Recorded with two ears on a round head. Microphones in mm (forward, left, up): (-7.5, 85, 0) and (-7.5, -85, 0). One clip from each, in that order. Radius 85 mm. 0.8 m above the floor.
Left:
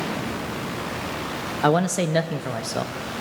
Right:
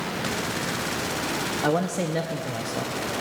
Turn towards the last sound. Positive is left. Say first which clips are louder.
# left 6 dB
turn(degrees=45)  # may be behind; listen again after turning